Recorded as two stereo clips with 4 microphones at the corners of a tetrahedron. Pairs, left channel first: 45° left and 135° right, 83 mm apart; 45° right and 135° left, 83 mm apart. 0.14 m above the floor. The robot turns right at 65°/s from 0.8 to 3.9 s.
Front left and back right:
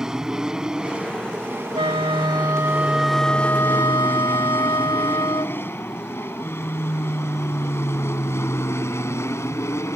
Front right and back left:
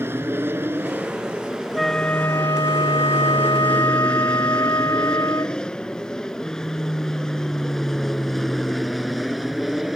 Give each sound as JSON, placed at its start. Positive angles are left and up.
{"t": 0.0, "sound": "an aircraft", "azimuth_deg": 150}
{"t": 1.8, "sound": "a flute", "azimuth_deg": -135}